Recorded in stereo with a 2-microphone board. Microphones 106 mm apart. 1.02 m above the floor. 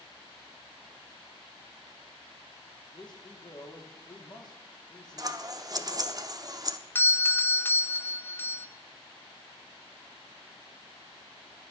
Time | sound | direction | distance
2.9 | a man speaking | 45° left (ahead or behind) | 2.5 m
5.2 | scissors | 35° right (ahead or behind) | 0.6 m
7.0 | a doorbell | 20° left (ahead or behind) | 0.7 m